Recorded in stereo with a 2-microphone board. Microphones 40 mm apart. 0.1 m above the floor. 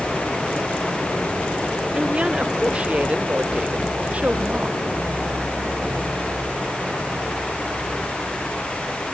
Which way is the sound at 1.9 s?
30° right (ahead or behind).